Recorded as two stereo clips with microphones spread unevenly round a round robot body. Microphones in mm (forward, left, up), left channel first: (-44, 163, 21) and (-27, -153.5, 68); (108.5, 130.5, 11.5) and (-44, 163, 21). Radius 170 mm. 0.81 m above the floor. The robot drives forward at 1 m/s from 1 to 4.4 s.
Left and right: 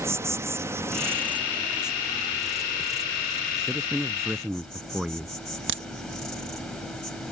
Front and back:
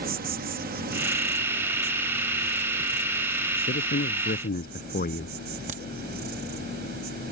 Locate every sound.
0.0 s an insect: 175° right; by 7.3 s straight behind
3.5 s a man speaking: straight ahead
5.7 s a crack: 145° right